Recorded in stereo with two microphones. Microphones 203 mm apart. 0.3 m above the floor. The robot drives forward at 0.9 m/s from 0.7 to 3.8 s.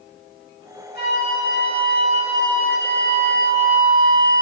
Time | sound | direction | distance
0.9 | a flute | 50° left (ahead or behind) | 5 m